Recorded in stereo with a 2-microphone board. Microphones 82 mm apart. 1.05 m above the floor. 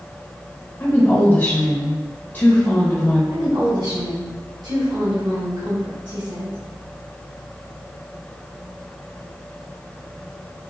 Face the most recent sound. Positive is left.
turn(degrees=-55)  # may be behind; listen again after turning